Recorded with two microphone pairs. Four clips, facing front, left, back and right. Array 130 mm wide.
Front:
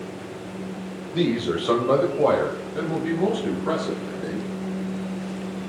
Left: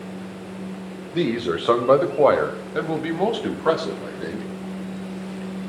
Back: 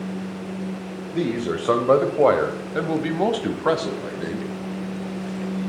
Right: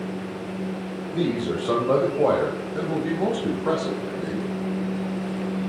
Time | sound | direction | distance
1.1 | a man speaking | 95° left | 1.8 m